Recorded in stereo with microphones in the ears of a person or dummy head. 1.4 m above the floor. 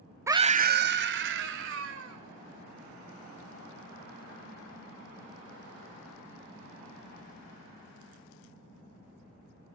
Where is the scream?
15° right (ahead or behind), 0.5 m; by 2.2 s 70° right (ahead or behind), 2.5 m.